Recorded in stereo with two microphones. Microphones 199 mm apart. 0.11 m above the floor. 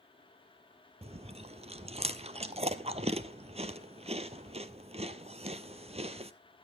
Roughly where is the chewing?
Right.